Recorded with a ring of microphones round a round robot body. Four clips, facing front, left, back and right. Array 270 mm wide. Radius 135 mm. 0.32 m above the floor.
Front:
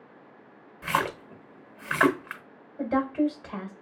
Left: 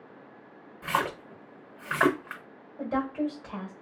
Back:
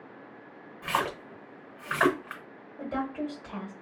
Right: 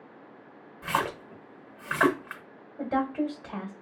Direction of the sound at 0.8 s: 5° right.